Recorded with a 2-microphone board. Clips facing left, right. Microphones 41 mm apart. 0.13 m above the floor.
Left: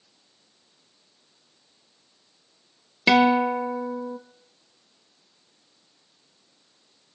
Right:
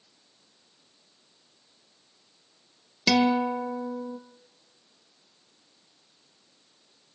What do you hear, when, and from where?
3.1 s a guitar: 25° left (ahead or behind), 1.2 m